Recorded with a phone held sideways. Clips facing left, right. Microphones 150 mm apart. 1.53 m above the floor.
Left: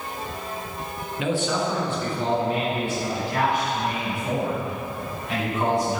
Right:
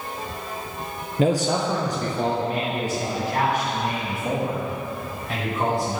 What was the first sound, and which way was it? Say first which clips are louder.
A man speaking: right 4 dB; 40° right (ahead or behind).